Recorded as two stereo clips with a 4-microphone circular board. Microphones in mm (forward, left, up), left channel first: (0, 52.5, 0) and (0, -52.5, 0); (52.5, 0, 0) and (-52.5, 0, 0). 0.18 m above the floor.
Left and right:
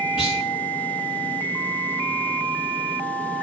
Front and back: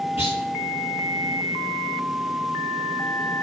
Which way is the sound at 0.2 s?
15° right.